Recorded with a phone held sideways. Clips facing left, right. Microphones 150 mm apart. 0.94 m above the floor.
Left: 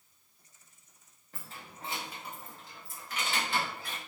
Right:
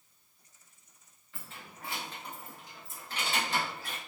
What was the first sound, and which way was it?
Keys jangling, 45° left (ahead or behind).